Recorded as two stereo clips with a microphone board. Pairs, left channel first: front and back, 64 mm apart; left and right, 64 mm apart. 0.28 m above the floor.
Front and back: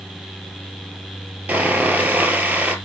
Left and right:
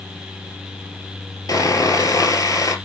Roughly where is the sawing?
Behind left.